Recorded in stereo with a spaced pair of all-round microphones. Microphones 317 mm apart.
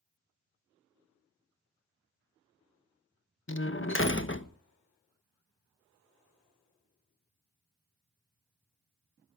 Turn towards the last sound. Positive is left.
turn(degrees=40)  # may be behind; listen again after turning